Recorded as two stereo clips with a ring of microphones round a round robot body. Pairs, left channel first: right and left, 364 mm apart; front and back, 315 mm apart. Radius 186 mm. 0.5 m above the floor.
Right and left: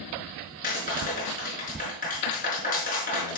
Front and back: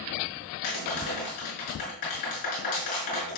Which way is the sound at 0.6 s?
25° right.